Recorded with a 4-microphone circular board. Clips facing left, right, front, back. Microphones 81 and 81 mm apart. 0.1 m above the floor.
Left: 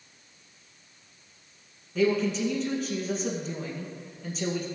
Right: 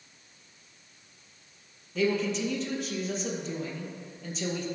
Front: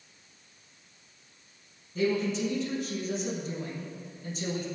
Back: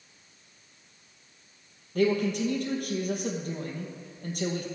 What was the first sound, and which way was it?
A man speaking, straight behind.